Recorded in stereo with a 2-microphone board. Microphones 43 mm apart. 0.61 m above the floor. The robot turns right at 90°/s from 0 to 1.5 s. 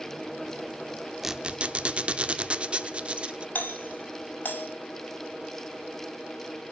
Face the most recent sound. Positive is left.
turn(degrees=50)  # may be behind; listen again after turning